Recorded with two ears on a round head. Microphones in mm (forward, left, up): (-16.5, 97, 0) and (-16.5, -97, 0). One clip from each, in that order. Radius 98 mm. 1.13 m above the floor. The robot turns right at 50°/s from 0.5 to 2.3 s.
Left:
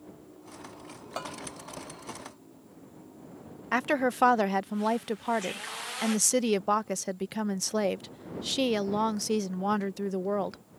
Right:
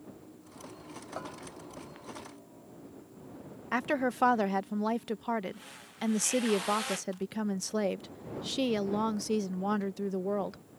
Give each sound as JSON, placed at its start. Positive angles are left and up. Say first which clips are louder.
{"t": 1.2, "sound": "a bell", "louder": "left 5 dB", "side_deg": 85}
{"t": 3.7, "sound": "a woman speaking", "louder": "left 4 dB", "side_deg": 20}